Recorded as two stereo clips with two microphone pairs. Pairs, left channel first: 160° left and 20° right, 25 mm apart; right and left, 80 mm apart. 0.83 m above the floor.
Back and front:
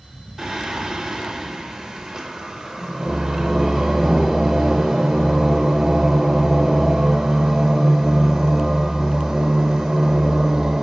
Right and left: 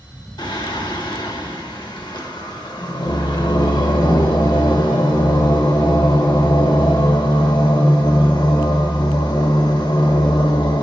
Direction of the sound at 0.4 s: 85° right.